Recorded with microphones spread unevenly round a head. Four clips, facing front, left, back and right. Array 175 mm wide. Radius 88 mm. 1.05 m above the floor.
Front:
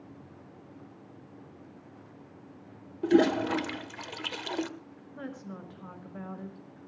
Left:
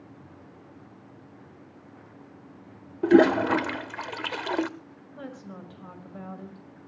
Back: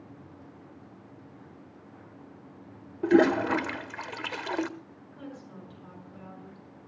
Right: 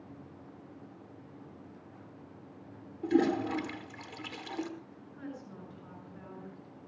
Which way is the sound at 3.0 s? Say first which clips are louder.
Left 10 dB, back 2 dB; 95° left.